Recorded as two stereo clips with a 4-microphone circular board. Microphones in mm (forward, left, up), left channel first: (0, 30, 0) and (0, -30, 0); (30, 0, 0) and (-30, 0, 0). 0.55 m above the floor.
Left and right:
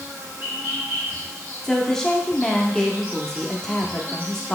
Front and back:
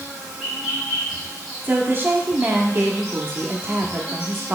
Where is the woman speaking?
165° left, 0.7 m.